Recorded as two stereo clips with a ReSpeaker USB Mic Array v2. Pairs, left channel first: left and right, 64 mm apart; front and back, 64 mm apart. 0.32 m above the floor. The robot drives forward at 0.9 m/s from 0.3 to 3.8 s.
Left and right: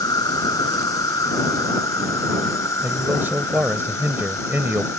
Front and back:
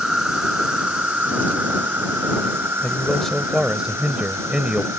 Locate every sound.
0.0 s an insect: 100° left; by 5.0 s 135° left
2.8 s a man speaking: 60° right; by 4.9 s 115° right